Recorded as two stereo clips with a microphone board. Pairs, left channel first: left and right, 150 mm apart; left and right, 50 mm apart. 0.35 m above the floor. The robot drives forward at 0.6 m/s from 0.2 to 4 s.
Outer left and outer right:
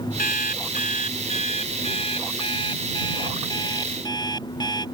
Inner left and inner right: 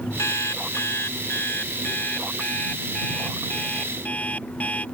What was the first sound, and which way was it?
An alarm clock, 70° left (ahead or behind).